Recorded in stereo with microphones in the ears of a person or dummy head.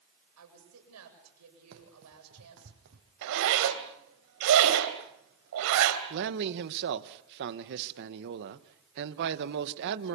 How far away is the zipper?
About 3 m.